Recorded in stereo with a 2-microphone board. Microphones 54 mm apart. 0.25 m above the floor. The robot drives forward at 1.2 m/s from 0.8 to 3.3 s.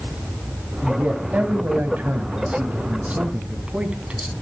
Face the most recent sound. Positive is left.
turn(degrees=-20)  # may be behind; listen again after turning